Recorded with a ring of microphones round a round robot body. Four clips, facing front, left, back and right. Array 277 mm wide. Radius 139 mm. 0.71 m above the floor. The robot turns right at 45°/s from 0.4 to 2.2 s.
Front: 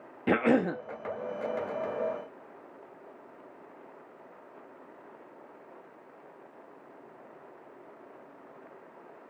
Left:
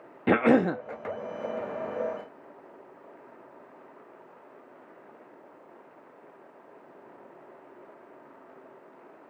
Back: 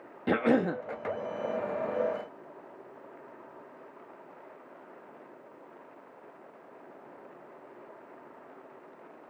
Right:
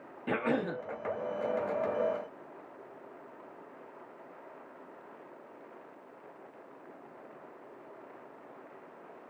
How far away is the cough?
About 0.7 m.